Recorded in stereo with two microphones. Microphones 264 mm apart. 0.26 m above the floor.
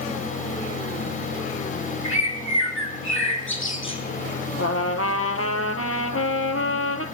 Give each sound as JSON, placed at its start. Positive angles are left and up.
{"t": 2.0, "sound": "a bird", "side_deg": 50, "distance_m": 3.0}
{"t": 4.6, "sound": "a trumpet", "side_deg": 60, "distance_m": 1.3}